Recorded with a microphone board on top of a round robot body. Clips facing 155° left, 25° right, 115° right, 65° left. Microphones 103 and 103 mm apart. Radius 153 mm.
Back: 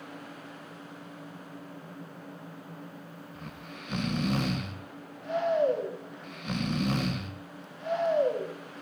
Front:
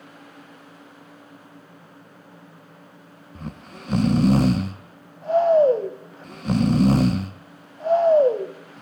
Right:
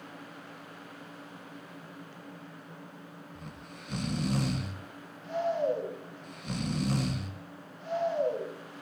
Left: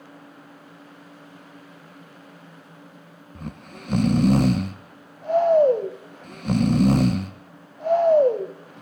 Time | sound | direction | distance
3.4 | snoring | 30° left | 0.6 m